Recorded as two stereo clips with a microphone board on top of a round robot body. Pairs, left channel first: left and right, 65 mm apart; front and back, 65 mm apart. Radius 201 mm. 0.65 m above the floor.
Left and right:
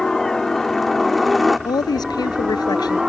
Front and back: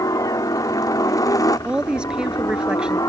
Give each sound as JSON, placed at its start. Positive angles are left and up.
{"t": 0.0, "sound": "a helicopter", "azimuth_deg": 5}
{"t": 1.6, "sound": "a woman speaking", "azimuth_deg": 105}